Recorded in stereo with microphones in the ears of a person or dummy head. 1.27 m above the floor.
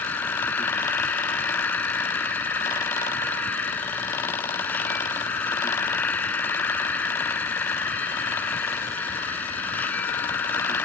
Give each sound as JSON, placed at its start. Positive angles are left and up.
{"t": 0.0, "sound": "an insect", "side_deg": 10}